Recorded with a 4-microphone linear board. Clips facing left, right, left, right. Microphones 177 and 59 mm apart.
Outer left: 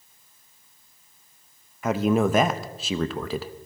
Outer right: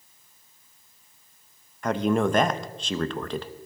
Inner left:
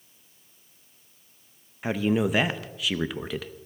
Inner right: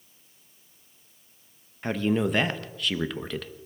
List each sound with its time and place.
1.8 s a man speaking: 5° left (ahead or behind), 0.7 m